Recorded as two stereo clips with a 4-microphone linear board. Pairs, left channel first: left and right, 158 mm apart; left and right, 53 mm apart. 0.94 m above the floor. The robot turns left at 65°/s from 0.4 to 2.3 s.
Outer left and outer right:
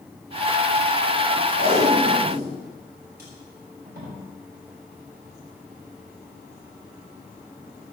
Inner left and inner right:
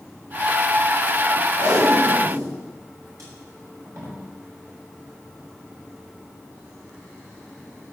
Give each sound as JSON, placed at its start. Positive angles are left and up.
{"t": 1.6, "sound": "tape being pulled", "side_deg": -55, "distance_m": 5.5}